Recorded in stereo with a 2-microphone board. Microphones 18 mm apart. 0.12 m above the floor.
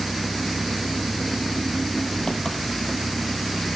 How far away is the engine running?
About 1.5 m.